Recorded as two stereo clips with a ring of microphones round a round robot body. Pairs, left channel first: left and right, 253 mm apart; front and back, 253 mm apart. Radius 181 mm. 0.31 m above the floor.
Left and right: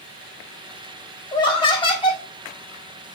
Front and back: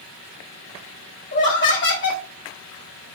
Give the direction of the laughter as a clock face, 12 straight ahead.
11 o'clock.